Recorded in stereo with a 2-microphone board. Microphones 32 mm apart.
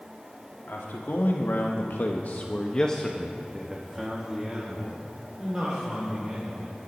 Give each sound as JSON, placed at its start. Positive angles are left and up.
{"t": 0.7, "sound": "a man speaking", "side_deg": 75, "distance_m": 1.6}